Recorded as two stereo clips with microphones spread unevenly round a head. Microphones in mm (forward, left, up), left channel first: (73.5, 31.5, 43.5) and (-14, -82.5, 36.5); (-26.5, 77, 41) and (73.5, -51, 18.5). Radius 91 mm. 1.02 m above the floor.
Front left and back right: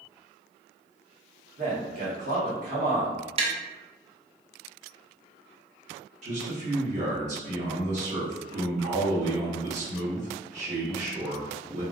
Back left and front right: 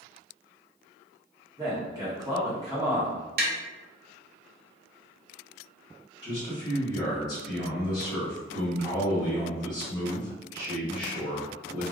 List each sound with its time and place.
1.6 s a man speaking: 115° right, 1.2 m
3.4 s tapping: 80° right, 0.6 m
6.2 s a man speaking: 165° right, 1.5 m